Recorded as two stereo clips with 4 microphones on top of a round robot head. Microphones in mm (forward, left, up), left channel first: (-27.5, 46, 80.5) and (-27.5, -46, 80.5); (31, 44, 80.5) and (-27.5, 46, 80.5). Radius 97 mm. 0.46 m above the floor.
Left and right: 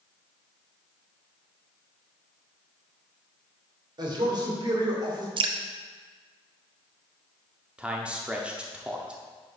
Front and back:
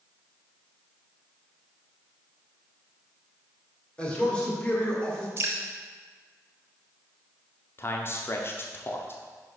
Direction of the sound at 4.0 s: 70° right.